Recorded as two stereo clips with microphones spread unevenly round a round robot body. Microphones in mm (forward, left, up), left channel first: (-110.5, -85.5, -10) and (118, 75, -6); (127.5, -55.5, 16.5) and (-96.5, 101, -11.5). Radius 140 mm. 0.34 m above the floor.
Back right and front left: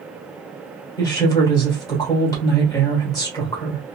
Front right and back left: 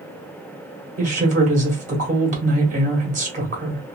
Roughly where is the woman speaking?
Behind left.